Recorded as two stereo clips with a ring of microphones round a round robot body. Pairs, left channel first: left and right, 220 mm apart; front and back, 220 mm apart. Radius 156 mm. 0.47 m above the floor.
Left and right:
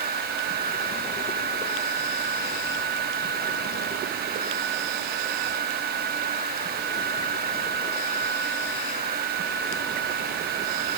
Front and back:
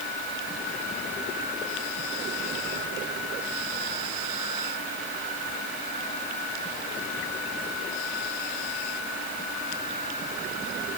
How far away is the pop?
I don't hear a pop.